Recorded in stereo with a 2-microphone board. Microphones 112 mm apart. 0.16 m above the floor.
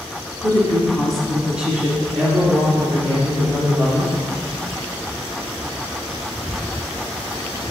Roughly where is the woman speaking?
Centre.